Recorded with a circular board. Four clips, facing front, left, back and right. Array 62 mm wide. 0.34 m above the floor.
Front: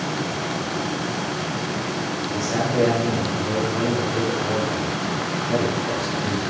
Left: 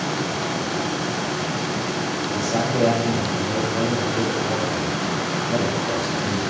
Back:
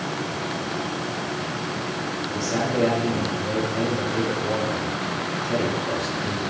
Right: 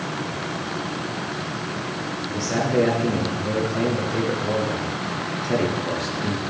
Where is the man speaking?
75° right, 6 m.